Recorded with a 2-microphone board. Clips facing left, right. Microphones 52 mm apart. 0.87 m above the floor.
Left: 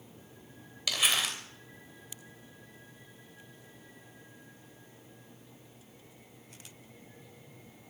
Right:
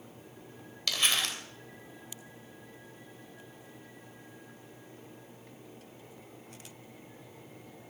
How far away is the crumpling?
About 2.5 m.